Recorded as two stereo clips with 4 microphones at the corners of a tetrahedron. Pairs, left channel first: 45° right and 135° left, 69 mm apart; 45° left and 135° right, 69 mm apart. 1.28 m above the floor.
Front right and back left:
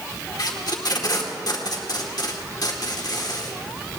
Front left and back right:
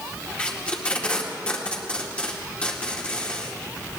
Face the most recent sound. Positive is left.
turn(degrees=-25)